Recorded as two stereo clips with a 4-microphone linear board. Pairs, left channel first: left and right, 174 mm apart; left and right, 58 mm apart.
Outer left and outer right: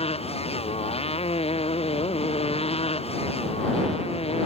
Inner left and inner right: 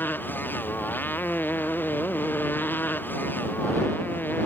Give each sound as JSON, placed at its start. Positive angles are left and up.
{"t": 0.0, "sound": "a motorcycle", "side_deg": 35}